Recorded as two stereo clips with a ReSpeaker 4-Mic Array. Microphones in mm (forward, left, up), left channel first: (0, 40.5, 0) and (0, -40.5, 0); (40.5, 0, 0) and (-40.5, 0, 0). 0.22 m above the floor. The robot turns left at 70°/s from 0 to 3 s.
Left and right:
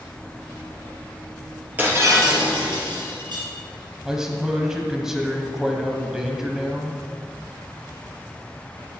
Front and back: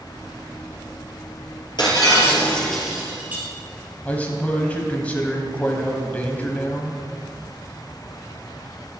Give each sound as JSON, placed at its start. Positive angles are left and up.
{"t": 1.8, "sound": "breaking glass", "azimuth_deg": -20, "distance_m": 3.0}
{"t": 4.0, "sound": "a man speaking", "azimuth_deg": -20, "distance_m": 1.2}